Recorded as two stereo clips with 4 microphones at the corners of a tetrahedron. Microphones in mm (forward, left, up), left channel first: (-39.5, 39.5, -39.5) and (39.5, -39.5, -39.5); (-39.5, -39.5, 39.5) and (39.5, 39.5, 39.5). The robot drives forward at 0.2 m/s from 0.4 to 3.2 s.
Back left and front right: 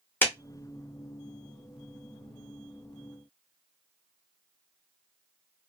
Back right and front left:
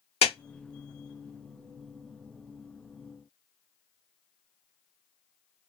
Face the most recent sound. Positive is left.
turn(degrees=-165)